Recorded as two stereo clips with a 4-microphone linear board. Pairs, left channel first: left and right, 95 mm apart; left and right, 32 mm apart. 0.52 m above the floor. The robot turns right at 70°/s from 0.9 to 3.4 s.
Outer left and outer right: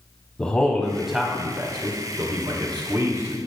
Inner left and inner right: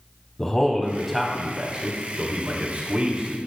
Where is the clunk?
I don't hear a clunk.